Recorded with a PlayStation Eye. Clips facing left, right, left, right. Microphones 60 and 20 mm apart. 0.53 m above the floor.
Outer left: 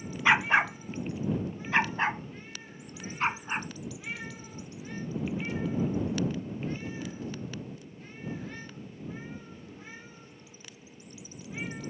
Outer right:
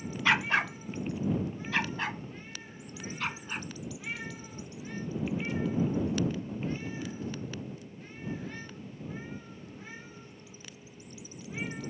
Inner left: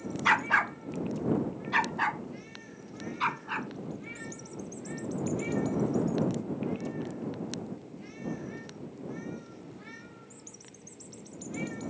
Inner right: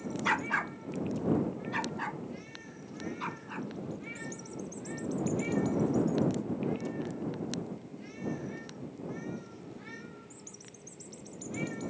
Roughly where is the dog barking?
Centre.